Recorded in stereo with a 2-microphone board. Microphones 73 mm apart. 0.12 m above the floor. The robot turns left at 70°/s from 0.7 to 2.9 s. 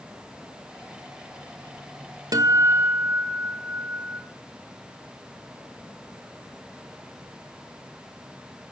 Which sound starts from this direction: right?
A guitar, at 2.3 s.